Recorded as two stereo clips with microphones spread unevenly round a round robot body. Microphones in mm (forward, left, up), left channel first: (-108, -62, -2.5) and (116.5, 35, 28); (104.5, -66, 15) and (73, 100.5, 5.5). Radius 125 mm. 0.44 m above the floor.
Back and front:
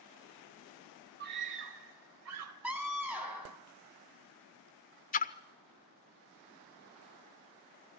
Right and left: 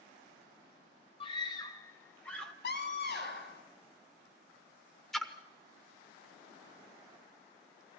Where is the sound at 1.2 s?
25° right, 2.5 m; by 2.5 s 10° left, 2.5 m.